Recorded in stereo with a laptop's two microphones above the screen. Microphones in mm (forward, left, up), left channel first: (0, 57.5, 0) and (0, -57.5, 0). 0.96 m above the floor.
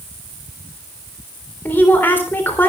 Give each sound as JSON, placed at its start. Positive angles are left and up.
{"t": 1.6, "sound": "a woman speaking", "side_deg": 15, "distance_m": 3.5}